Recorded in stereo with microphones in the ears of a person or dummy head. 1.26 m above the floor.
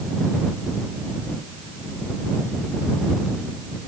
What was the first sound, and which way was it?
Only background noise.